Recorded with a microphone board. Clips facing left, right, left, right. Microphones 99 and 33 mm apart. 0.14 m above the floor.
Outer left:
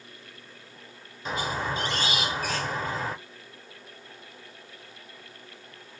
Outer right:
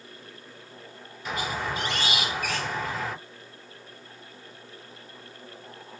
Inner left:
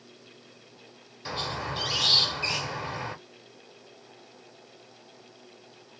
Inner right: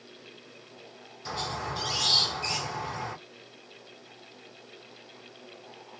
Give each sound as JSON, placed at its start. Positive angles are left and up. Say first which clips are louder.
{"t": 1.2, "sound": "a squeak", "louder": "outer left 1 dB, inner left 1 dB", "side_deg": 30, "distance_m": 1.2}